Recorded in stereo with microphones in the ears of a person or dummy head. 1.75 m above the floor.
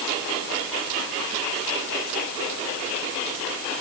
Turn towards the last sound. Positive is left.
No sound to turn to.